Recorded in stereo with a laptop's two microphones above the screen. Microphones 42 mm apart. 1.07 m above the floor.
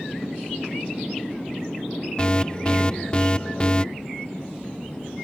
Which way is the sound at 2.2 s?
25° left (ahead or behind).